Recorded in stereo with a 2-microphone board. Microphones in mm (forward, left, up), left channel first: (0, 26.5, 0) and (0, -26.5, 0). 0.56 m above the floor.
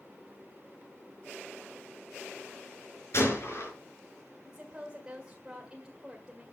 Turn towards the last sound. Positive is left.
turn(degrees=-15)  # may be behind; listen again after turning